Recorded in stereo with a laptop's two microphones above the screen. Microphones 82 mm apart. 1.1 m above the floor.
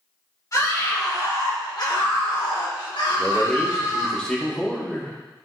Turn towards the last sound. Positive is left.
turn(degrees=10)  # may be behind; listen again after turning